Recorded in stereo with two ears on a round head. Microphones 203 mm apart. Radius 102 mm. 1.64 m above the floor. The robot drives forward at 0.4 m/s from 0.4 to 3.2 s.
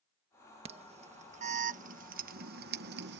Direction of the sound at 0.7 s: 25° right (ahead or behind).